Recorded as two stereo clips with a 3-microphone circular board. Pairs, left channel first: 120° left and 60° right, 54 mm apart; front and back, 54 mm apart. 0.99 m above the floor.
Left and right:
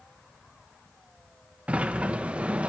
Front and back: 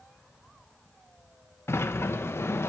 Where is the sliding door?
Straight ahead, 0.6 m.